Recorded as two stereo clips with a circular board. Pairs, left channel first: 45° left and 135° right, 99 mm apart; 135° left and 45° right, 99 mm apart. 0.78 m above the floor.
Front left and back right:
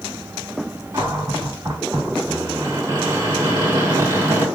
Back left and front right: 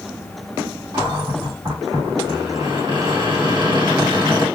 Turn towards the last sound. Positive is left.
turn(degrees=-80)